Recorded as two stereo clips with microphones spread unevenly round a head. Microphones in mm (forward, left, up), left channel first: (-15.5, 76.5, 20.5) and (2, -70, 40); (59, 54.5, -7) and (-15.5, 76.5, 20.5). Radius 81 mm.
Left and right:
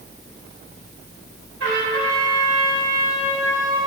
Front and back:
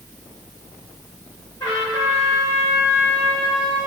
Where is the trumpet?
85° right, 2.5 m.